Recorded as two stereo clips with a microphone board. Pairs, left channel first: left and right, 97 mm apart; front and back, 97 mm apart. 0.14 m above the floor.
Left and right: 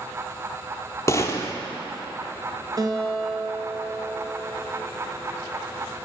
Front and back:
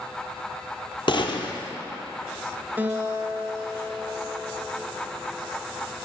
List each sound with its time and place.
1.1 s a gunshot: 30° left, 0.8 m
2.8 s a guitar: 115° right, 1.1 m